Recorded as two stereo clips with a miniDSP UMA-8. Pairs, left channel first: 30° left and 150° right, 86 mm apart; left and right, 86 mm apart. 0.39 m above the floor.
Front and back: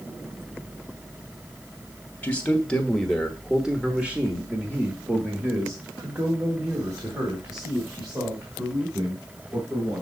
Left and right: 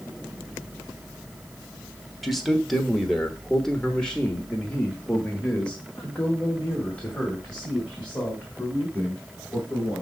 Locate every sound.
2.2 s a man speaking: straight ahead, 1.3 m; by 10.0 s 165° left, 3.5 m